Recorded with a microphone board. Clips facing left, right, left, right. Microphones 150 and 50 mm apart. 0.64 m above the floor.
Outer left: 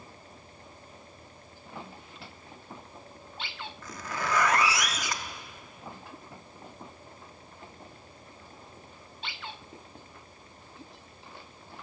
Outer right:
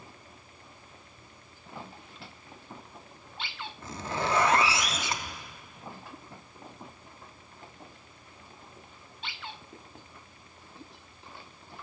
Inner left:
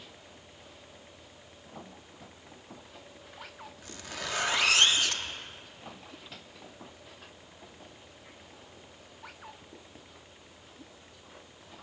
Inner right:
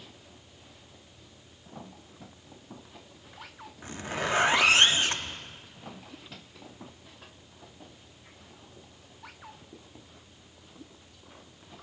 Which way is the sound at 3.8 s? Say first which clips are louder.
Outer right 3 dB, inner right 8 dB; 25° right (ahead or behind).